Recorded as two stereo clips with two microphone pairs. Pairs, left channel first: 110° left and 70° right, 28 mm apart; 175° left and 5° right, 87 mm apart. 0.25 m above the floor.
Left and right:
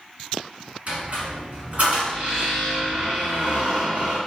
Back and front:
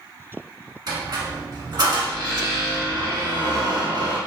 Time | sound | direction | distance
0.9 | a squeak | 40° right | 1.3 m